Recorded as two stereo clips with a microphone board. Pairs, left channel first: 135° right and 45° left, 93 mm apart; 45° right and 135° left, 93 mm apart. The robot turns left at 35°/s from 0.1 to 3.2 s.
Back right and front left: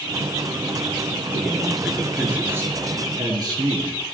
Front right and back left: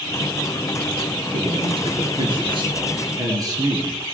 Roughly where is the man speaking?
Behind left.